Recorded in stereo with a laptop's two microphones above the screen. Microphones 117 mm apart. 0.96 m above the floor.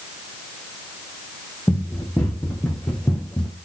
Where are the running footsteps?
10° left (ahead or behind), 3 m.